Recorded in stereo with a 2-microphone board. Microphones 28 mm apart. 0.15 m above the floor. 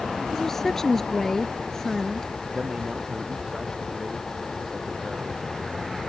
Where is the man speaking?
30° right (ahead or behind).